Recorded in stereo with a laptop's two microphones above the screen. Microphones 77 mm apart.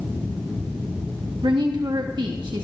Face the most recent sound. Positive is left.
turn(degrees=-75)  # may be behind; listen again after turning